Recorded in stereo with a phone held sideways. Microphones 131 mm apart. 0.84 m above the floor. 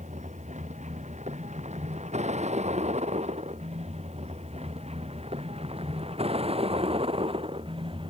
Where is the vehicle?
65° right (ahead or behind); by 8.1 s 45° right (ahead or behind).